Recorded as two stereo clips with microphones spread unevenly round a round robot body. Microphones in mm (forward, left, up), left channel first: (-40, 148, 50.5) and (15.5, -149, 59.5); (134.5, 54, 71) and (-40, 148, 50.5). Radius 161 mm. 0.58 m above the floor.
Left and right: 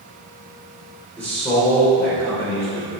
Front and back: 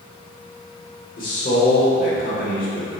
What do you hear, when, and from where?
1.2 s a man speaking: 15° left, 2.5 m